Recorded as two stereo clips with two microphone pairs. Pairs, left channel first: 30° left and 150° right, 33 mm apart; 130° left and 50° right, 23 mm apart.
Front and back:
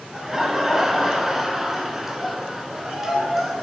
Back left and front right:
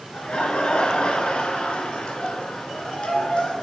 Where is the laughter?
135° left, 1.9 m.